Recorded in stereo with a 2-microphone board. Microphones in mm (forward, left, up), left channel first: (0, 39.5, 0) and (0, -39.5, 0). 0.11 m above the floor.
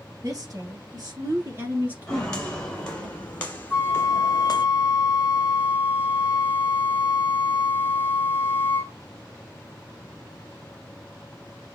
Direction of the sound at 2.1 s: 10° left (ahead or behind).